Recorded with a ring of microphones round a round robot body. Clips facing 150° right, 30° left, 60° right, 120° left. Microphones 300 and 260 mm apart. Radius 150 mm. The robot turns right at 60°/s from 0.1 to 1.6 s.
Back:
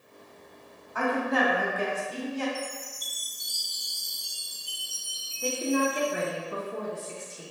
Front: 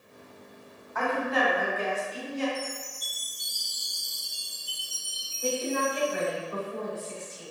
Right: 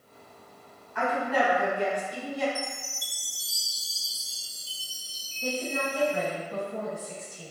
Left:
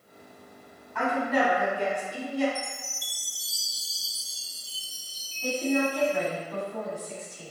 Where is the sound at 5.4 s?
125° right, 1.6 m.